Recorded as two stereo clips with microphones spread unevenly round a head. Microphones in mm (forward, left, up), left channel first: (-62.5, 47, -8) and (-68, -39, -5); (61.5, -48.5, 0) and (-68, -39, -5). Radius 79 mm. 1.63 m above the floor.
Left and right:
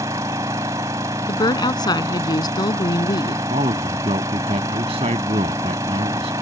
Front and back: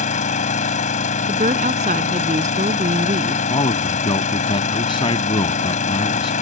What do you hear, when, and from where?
0.0 s an engine running: 25° right
1.3 s a woman speaking: 125° left
3.5 s a man speaking: 55° right